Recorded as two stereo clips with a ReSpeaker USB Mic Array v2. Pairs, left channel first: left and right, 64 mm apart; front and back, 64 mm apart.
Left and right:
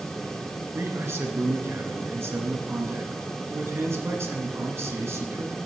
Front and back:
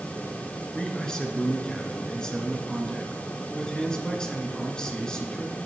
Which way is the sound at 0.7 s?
70° right.